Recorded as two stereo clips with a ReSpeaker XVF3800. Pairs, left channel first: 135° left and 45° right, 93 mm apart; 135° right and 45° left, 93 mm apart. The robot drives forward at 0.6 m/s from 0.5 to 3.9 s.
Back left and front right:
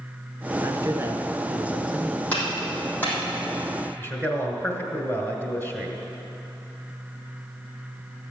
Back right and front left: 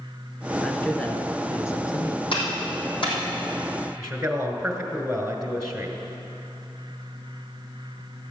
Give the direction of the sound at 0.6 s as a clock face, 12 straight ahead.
2 o'clock.